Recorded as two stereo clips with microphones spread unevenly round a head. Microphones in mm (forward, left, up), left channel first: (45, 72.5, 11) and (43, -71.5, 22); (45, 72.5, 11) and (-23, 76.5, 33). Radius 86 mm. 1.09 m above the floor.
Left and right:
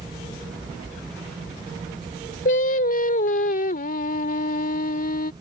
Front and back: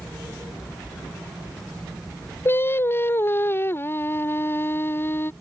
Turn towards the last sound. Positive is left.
turn(degrees=60)